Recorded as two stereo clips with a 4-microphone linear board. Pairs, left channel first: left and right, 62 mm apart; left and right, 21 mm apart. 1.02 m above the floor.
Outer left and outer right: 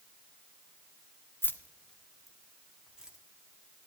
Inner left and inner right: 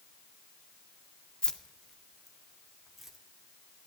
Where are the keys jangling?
40° left (ahead or behind), 0.7 m; by 3.2 s 15° right (ahead or behind), 1.7 m.